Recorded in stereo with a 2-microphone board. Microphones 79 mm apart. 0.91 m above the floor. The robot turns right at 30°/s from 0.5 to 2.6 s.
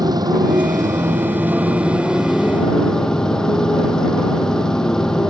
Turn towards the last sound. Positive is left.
turn(degrees=10)